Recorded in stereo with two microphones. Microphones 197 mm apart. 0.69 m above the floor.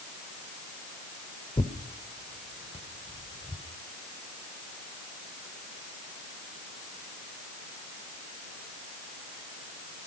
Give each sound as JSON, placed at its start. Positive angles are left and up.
{"t": 1.6, "sound": "tearing paper", "side_deg": 30, "distance_m": 2.5}